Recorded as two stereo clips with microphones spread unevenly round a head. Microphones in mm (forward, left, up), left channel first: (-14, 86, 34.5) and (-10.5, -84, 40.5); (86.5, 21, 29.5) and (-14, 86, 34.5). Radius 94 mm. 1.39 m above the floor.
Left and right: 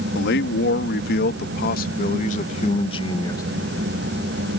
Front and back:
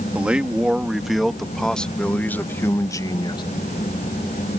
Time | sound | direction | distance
0.1 | a man speaking | 65° left | ?